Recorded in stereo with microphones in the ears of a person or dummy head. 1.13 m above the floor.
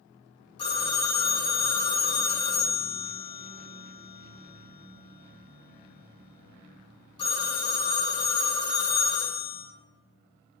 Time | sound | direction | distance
0.6 | a phone ringing | 30° left (ahead or behind) | 0.6 m